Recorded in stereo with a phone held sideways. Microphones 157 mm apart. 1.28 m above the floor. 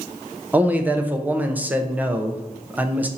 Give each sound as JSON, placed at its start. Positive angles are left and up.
{"t": 0.5, "sound": "a man speaking", "side_deg": -10, "distance_m": 0.5}